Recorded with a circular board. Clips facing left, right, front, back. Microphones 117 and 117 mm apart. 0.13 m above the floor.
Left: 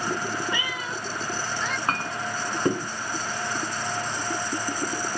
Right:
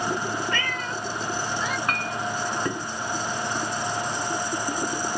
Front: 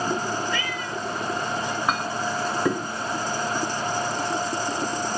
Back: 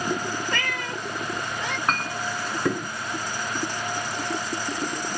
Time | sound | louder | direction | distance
0.5 | a cat meowing | right 2 dB, front 1 dB | 165° left | ?
1.9 | a clink | right 1 dB, front 1 dB | 75° left | ?